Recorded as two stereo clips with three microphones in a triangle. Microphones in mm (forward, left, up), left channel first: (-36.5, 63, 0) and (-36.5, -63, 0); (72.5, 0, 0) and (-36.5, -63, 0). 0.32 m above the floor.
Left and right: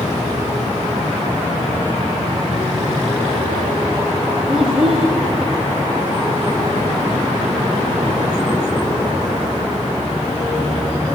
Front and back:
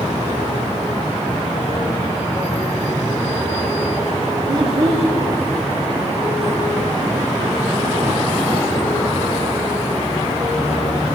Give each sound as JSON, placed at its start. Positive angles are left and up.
{"t": 4.5, "sound": "a child speaking", "azimuth_deg": -170, "distance_m": 1.1}